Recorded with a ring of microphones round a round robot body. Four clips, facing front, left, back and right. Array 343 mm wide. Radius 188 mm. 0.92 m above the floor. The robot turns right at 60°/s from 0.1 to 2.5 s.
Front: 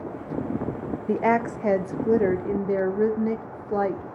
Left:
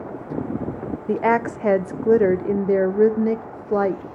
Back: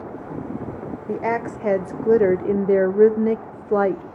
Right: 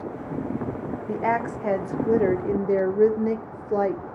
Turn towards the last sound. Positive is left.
turn(degrees=150)